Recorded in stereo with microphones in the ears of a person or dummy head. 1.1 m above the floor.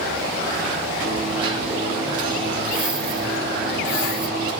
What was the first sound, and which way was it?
A dropped coin, 30° right (ahead or behind).